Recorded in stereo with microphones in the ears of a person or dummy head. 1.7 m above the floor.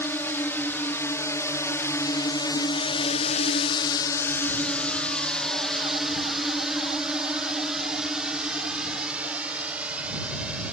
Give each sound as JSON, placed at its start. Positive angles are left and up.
{"t": 0.0, "sound": "a drone", "side_deg": 10}